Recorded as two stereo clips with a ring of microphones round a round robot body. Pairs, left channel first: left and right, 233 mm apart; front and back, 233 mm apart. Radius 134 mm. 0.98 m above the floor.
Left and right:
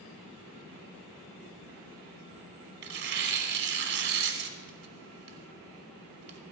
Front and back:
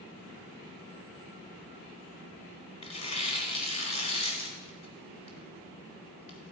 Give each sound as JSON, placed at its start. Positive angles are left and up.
{"t": 2.8, "sound": "tearing paper", "azimuth_deg": -65, "distance_m": 1.2}